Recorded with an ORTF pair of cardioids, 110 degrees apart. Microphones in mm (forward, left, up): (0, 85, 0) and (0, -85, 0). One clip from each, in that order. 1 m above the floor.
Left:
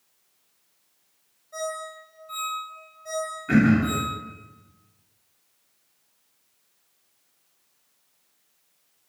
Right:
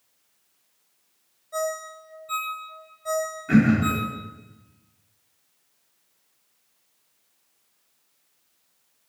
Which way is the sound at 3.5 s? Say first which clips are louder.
Even; 10° left.